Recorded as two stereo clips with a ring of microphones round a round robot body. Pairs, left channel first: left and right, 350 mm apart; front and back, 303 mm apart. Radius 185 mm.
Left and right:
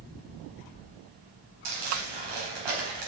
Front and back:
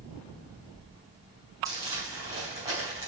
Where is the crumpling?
100° right, 4 m.